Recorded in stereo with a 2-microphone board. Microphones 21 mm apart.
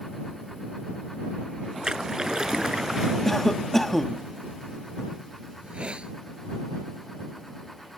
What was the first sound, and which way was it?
A splash, 35° right (ahead or behind).